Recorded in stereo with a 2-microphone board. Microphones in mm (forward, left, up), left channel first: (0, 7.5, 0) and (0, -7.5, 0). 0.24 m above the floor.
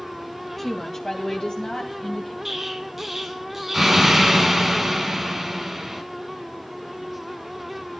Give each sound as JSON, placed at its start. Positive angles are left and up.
{"t": 0.6, "sound": "a woman speaking", "side_deg": 20, "distance_m": 1.0}
{"t": 2.5, "sound": "an explosion", "side_deg": -20, "distance_m": 1.7}